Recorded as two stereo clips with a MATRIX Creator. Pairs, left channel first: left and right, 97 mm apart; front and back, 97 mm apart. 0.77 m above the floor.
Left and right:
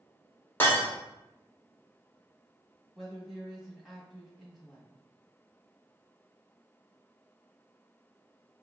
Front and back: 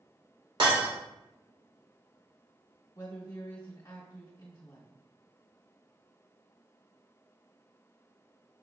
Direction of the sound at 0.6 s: 155° left.